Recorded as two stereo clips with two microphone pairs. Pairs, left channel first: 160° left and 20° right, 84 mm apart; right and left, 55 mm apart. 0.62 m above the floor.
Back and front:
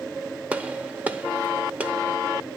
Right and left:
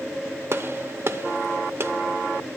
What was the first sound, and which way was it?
A gunshot, 50° left.